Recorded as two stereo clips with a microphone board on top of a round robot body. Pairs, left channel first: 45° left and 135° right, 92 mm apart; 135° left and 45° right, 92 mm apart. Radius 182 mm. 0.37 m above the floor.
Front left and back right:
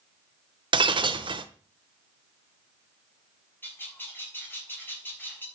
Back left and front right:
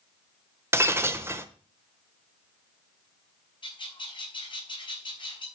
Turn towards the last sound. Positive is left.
turn(degrees=110)